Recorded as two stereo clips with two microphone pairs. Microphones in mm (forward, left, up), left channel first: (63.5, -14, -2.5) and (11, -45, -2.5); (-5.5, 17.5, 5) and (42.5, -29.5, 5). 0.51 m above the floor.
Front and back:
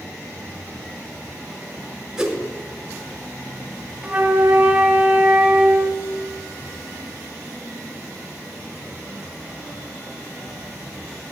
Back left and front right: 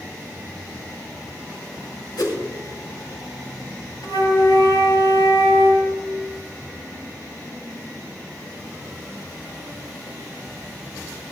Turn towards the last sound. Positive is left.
turn(degrees=135)